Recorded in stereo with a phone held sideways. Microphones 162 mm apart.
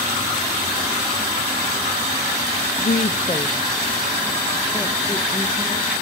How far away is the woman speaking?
About 0.6 m.